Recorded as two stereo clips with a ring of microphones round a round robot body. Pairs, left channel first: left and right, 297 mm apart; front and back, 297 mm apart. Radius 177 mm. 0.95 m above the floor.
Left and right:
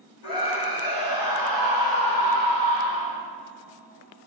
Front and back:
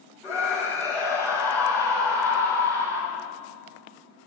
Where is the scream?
85° left, 6 m.